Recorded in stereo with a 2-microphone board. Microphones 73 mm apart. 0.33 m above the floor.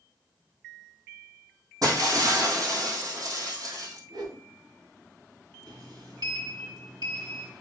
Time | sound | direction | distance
1.8 | breaking glass | 60° right (ahead or behind) | 4 m
4.1 | a whoosh | 70° right (ahead or behind) | 4 m
5.7 | a sliding door | 65° right (ahead or behind) | 5.5 m